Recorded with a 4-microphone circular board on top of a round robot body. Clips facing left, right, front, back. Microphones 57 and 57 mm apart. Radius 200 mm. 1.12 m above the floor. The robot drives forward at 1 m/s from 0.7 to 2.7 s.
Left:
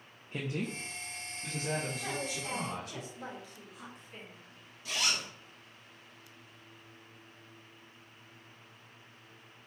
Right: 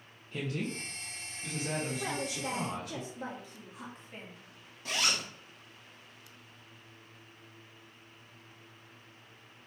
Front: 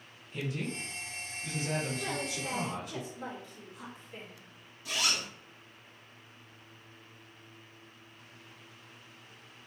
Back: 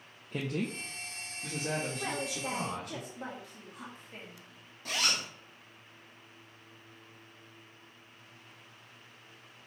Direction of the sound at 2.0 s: 135° right.